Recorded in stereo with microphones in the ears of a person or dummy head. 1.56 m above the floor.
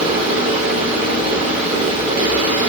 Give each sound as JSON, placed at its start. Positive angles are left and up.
{"t": 0.0, "sound": "a fan", "side_deg": -40, "distance_m": 3.0}